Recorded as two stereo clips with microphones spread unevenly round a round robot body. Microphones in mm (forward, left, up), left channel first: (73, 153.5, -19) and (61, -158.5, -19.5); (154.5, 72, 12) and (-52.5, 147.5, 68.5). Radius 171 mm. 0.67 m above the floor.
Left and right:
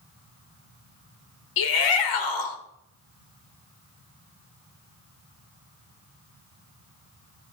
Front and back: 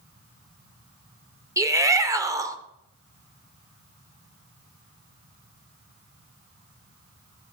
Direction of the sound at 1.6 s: 80° left.